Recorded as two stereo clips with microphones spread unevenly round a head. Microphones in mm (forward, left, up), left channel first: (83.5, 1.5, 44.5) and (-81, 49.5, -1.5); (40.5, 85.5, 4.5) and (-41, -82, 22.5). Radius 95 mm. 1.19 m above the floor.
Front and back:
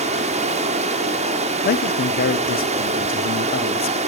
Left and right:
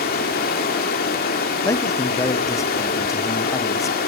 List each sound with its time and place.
0.0 s running water: 110° left, 1.7 m
1.6 s a man speaking: 5° left, 0.7 m